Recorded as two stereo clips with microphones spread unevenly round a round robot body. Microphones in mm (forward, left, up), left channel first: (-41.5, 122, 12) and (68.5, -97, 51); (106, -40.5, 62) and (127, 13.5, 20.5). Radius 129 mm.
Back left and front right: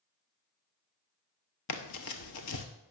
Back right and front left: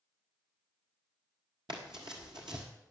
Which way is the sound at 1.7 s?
135° left.